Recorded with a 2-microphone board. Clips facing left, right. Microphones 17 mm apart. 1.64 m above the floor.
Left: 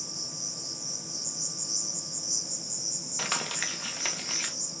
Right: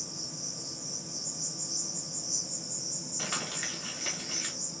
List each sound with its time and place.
0.0 s an insect: 50° left (ahead or behind), 2.5 m
3.2 s crumpling: 75° left (ahead or behind), 2 m